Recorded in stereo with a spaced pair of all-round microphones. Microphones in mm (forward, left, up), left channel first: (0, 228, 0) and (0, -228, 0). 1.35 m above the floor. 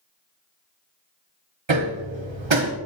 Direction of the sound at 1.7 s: 75° right (ahead or behind).